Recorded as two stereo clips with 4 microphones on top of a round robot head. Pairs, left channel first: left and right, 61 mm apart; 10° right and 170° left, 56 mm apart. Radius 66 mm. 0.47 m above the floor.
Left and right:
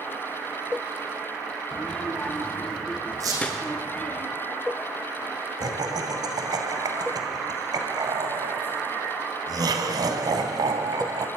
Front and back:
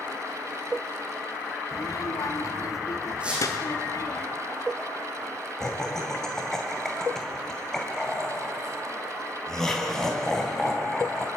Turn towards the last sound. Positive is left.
turn(degrees=-90)